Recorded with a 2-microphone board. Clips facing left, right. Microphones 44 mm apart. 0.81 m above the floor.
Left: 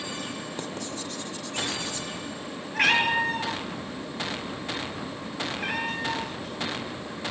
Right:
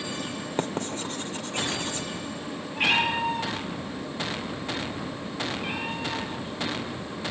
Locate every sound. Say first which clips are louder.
0.6 s writing: right 5 dB; 40° right (ahead or behind), 2 m
2.7 s a cat meowing: left 2 dB; 80° left, 6.5 m